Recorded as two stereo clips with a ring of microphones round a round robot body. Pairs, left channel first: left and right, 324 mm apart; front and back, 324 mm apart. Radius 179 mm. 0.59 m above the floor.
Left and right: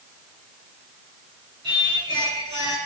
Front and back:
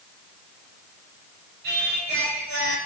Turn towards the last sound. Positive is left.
turn(degrees=-170)